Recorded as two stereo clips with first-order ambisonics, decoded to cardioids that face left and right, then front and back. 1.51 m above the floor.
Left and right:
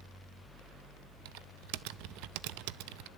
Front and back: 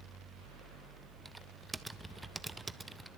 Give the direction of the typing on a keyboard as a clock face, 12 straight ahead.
3 o'clock.